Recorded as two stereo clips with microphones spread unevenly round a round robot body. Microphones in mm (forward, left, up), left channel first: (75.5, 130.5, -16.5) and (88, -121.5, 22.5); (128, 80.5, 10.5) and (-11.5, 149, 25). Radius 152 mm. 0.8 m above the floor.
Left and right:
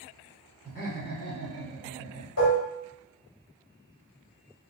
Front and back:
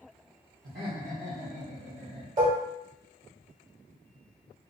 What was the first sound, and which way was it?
Laughter, 160° left.